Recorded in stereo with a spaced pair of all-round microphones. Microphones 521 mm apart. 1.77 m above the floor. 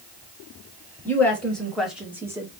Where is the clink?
I don't hear a clink.